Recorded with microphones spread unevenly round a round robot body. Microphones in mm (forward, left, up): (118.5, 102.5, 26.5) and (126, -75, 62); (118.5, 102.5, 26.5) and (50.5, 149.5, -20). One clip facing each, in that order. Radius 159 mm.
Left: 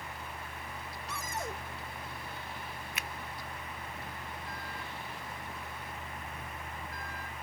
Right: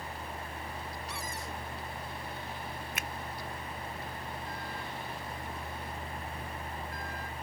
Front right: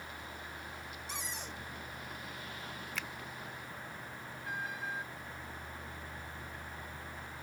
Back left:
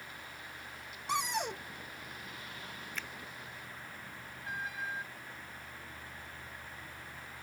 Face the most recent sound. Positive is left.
turn(degrees=-40)